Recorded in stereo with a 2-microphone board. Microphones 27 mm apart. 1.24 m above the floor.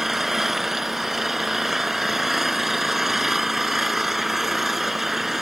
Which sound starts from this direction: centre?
An engine running, at 0.0 s.